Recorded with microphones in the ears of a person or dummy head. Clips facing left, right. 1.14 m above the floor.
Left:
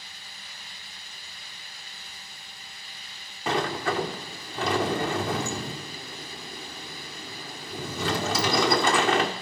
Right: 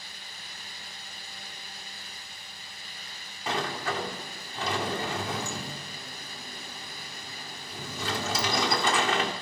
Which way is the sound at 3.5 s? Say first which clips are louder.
Left 5 dB; 60° left (ahead or behind).